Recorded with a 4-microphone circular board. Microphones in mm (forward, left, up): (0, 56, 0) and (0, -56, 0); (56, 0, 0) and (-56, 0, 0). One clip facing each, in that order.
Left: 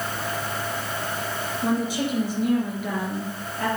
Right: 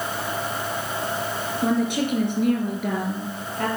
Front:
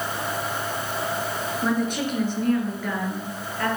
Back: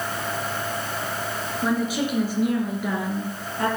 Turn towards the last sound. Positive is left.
turn(degrees=-115)